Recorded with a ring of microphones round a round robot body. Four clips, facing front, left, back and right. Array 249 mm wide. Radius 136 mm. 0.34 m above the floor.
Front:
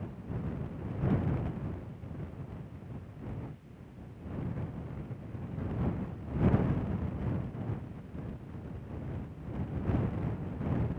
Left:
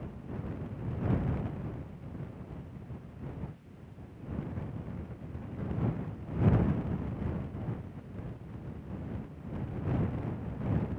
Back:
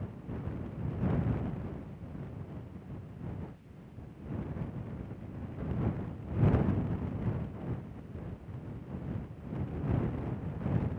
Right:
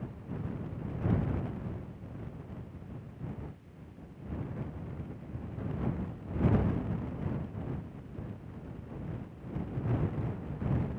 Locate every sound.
Only background noise.